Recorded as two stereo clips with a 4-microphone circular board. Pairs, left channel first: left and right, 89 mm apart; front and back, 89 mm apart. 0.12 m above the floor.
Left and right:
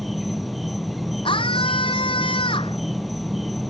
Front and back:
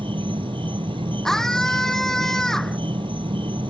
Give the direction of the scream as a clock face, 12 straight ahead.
9 o'clock.